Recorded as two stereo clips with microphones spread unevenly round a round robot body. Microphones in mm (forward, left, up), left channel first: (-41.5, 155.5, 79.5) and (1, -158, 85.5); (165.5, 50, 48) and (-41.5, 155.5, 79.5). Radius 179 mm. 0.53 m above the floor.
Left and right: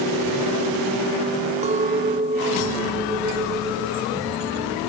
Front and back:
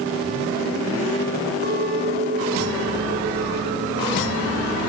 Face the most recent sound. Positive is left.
turn(degrees=-150)